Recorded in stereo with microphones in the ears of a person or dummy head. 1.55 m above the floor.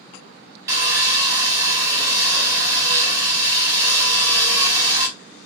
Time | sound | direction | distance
0.7 | sawing | 15° right (ahead or behind) | 1.0 m